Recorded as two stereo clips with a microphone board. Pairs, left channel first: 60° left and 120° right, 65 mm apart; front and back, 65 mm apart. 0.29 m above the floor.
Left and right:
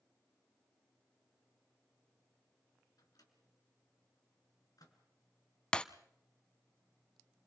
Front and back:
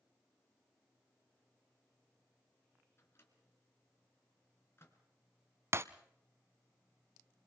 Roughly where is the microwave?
Ahead left.